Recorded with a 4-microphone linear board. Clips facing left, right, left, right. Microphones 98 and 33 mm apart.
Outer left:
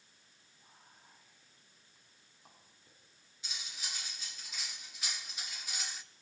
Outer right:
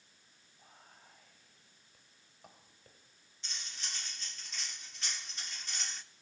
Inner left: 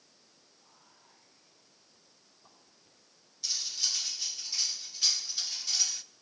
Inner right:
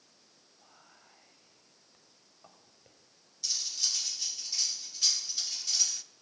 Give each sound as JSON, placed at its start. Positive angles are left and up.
{"t": 0.6, "sound": "whispering", "side_deg": -80, "distance_m": 5.5}
{"t": 3.4, "sound": "cutlery clinking", "side_deg": 10, "distance_m": 1.4}